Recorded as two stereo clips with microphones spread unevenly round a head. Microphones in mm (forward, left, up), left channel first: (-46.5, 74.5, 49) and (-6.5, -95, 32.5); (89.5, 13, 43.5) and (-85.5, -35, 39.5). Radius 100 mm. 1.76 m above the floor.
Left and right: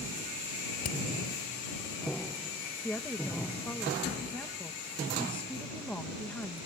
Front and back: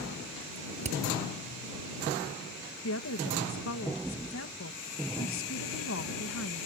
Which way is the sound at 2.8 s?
20° left.